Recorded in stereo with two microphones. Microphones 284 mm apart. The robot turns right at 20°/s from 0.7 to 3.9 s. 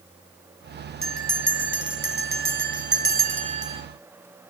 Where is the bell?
75° right, 1.4 m; by 3.8 s 20° right, 1.4 m.